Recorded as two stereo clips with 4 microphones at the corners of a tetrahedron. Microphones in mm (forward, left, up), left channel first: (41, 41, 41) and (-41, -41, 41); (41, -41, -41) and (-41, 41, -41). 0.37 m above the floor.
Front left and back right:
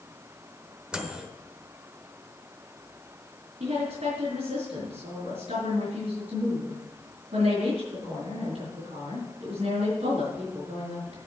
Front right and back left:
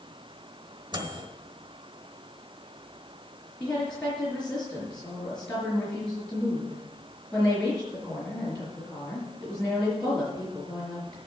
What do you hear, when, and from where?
0.9 s a microwave: 145° left, 1.1 m
3.6 s a woman speaking: 125° right, 4.5 m